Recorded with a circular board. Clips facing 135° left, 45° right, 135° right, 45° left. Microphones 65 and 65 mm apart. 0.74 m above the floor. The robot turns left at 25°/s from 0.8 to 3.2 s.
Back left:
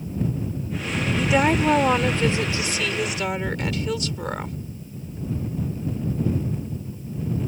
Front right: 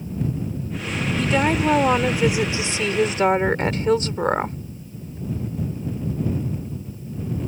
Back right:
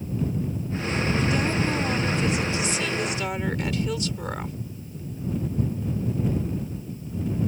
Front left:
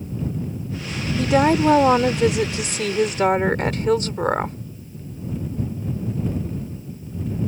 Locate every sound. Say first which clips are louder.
1.2 s a woman speaking: even, front left 13 dB; 55° left; by 4.6 s 5° left